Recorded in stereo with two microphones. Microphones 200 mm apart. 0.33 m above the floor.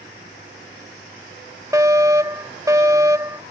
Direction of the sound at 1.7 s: 15° right (ahead or behind).